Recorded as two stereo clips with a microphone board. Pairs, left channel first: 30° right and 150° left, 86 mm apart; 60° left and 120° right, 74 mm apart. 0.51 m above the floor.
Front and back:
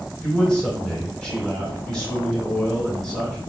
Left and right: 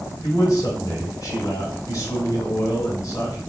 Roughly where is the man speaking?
Ahead left.